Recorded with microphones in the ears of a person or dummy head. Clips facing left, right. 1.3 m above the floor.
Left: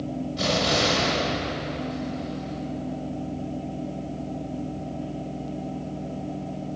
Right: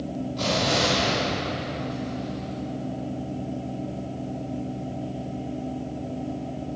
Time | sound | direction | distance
0.4 | an explosion | 10° left (ahead or behind) | 2.5 m